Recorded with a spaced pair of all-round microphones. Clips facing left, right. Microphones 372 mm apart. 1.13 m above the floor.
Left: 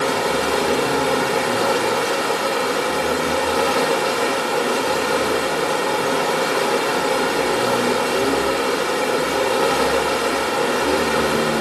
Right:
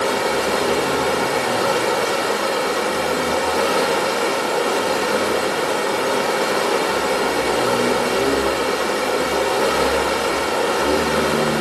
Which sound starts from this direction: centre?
Running water, at 0.0 s.